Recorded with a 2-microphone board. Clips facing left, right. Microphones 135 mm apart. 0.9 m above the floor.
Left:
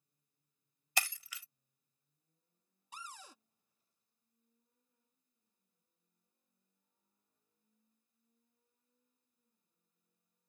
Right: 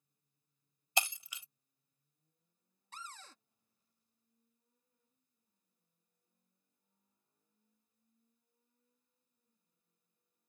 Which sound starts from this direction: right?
Breaking glass, at 1.0 s.